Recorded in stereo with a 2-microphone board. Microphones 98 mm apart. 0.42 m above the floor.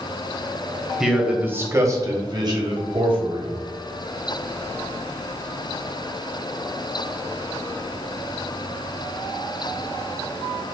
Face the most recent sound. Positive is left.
turn(degrees=-60)  # may be behind; listen again after turning